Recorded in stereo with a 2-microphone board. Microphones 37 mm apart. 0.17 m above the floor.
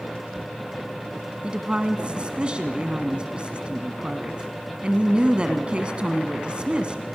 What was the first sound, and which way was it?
A woman speaking, 30° right (ahead or behind).